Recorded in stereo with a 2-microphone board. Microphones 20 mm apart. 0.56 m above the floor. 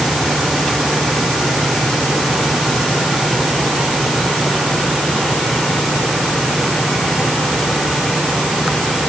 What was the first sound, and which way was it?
Only background noise.